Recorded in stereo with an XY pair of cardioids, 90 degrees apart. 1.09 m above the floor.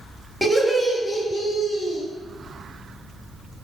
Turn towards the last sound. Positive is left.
turn(degrees=55)